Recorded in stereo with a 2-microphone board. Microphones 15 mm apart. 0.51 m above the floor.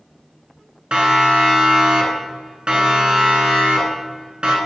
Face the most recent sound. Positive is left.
turn(degrees=-80)